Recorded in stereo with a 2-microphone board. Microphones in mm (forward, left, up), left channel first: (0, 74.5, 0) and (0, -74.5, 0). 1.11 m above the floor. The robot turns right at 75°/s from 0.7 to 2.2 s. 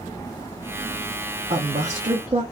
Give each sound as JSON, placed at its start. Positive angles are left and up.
{"t": 1.5, "sound": "a woman speaking", "azimuth_deg": -115, "distance_m": 0.6}